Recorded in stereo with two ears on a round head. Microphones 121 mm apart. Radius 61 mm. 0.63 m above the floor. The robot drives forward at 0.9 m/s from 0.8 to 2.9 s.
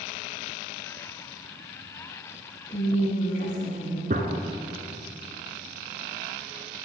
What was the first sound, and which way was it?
A woman speaking, 60° left (ahead or behind).